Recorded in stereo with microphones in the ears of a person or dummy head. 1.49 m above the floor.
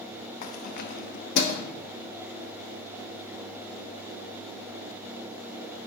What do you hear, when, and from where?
0.4 s keys jangling: 45° left (ahead or behind), 1.1 m; by 1.6 s 65° left (ahead or behind), 1.6 m